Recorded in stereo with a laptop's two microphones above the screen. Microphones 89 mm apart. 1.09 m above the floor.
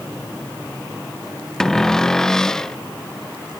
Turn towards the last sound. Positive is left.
turn(degrees=5)  # may be behind; listen again after turning